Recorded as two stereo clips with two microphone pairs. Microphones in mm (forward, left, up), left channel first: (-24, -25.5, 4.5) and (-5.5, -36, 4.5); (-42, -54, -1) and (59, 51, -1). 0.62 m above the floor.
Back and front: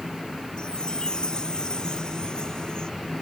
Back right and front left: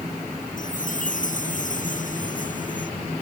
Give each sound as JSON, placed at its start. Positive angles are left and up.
{"t": 0.6, "sound": "a chime", "azimuth_deg": -160}